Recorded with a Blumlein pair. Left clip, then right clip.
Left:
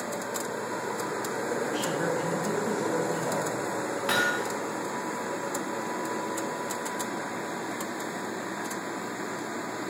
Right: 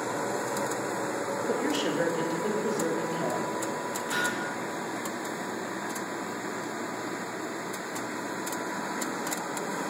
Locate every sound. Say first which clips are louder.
1.5 s a woman speaking: right 2 dB; 40° right, 2.5 m; by 4.0 s 35° right, 5 m
4.1 s hammering: left 4 dB; 35° left, 3 m